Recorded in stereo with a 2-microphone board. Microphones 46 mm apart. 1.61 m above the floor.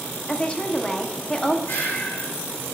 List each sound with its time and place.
0.3 s a woman speaking: 25° left (ahead or behind), 0.9 m
1.7 s breathing: 60° left (ahead or behind), 2.5 m